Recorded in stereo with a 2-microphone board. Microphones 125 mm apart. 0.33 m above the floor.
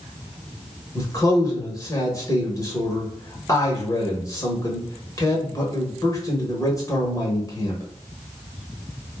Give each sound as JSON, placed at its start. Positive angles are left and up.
{"t": 0.9, "sound": "a man speaking", "side_deg": 30, "distance_m": 1.0}